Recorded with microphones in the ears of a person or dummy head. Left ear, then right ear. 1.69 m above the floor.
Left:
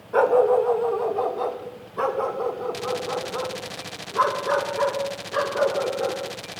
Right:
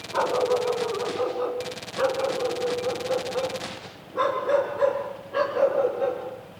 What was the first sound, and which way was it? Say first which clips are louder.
A dog barking: left 6 dB; 55° left (ahead or behind).